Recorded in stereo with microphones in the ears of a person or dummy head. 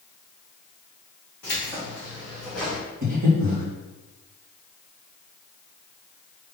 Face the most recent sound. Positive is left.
turn(degrees=-40)  # may be behind; listen again after turning